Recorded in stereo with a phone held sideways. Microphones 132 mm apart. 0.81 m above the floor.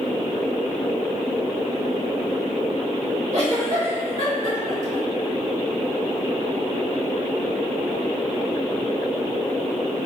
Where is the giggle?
70° right (ahead or behind), 1.7 m.